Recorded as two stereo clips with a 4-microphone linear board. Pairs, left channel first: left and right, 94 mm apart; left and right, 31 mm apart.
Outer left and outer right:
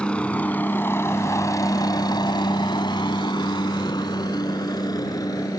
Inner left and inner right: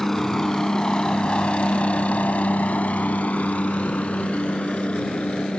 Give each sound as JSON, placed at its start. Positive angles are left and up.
{"t": 0.0, "sound": "a helicopter", "side_deg": 10}